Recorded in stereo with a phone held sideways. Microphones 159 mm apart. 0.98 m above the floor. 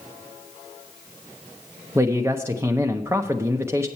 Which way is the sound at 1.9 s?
15° right (ahead or behind).